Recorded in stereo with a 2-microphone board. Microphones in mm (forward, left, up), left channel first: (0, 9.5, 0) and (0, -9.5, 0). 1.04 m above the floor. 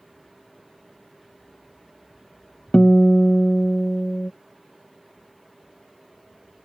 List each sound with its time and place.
2.7 s a guitar: 45° left (ahead or behind)